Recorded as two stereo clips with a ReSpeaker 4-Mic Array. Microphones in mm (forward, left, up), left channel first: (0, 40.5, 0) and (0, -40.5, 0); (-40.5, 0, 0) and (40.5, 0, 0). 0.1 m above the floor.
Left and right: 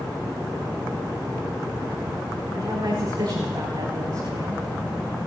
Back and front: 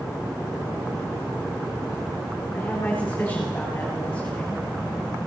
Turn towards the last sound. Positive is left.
turn(degrees=-110)